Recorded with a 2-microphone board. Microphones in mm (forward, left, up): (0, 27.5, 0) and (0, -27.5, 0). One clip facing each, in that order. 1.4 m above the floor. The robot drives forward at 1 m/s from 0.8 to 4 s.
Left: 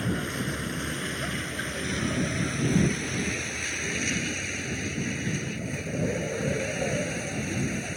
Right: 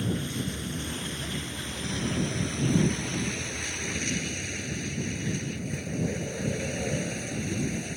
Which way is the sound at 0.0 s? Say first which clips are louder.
Left 1 dB; 50° left (ahead or behind).